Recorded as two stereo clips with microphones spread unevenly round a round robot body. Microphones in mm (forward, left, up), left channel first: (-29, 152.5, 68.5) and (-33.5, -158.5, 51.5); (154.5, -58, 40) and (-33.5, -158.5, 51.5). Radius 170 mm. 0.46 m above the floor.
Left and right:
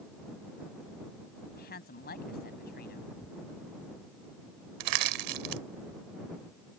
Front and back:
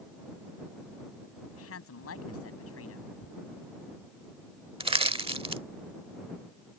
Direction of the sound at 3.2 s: 5° left.